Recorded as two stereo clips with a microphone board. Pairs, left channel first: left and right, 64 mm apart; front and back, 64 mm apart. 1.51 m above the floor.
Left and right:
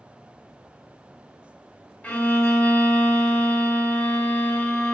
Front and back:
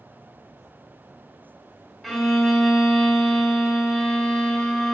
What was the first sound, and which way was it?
A violin, 90° left.